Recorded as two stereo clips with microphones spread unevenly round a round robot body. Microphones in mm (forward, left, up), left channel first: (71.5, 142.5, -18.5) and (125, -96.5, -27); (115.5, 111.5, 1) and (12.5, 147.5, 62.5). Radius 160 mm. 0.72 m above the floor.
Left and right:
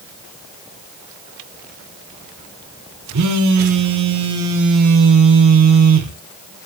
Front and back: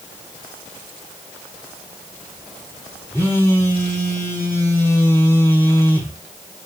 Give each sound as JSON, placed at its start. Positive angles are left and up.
{"t": 3.1, "sound": "a phone buzzing", "azimuth_deg": -115, "distance_m": 0.5}